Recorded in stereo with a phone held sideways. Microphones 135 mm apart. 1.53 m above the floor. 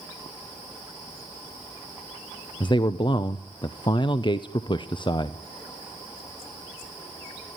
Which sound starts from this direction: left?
A man speaking, at 2.6 s.